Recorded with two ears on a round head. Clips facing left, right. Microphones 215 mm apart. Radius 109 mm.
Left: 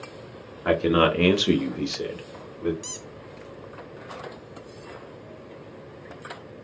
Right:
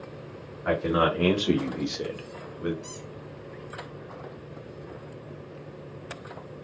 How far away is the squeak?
About 0.6 m.